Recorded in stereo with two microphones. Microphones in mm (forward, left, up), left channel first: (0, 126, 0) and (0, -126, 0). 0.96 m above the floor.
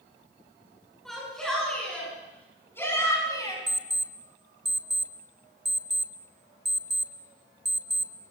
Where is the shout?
Centre (ahead or behind), 10 m; by 3.6 s 15° left (ahead or behind), 7 m.